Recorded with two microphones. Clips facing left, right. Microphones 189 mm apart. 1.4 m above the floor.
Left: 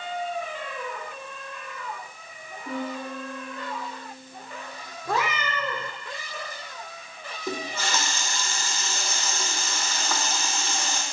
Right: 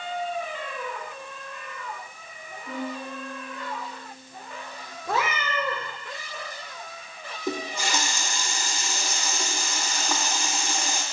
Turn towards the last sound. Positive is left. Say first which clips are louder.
# right 1 dB
turn(degrees=-15)  # may be behind; listen again after turning